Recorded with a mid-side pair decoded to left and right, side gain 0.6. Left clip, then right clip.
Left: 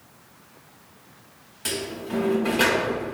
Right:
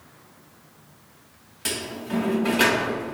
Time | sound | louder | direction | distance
1.6 | a sliding door | even | 15° right | 0.5 m